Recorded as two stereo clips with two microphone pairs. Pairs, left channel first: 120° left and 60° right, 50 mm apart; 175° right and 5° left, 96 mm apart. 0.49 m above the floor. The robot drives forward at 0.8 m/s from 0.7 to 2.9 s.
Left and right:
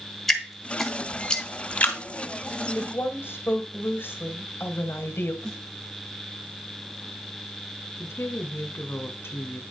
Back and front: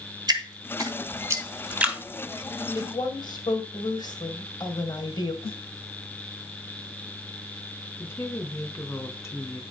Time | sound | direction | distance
0.3 | dripping | 40° left | 1.7 m
2.8 | a woman speaking | 145° left | 1.7 m
5.4 | a snare drum | 165° right | 2 m
8.0 | a woman speaking | 125° left | 1.4 m